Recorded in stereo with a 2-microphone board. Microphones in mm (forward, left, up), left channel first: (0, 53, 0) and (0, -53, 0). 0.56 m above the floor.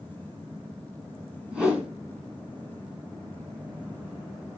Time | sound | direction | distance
1.5 | a whoosh | 10° right (ahead or behind) | 2.5 m